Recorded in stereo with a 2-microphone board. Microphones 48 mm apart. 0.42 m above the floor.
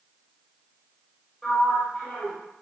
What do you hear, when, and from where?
1.4 s a sliding door: 15° left (ahead or behind), 1.6 m